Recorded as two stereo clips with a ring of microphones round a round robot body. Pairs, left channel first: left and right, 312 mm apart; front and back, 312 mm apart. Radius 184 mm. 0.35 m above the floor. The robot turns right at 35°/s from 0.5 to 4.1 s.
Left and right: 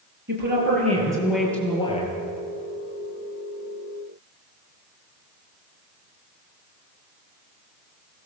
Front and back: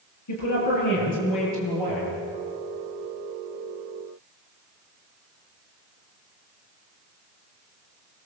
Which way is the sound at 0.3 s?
30° right.